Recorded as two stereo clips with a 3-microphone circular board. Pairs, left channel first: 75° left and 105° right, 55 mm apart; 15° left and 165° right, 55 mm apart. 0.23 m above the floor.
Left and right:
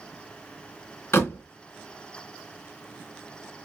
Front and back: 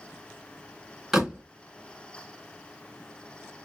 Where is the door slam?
110° left, 2.5 m.